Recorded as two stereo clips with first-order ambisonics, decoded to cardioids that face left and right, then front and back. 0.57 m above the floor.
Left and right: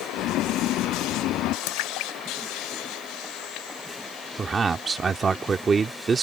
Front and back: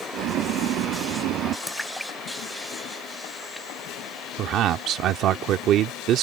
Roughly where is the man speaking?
Behind right.